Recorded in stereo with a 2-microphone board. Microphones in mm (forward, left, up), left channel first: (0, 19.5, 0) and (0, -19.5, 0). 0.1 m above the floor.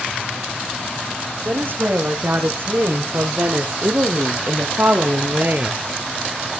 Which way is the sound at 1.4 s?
55° right (ahead or behind).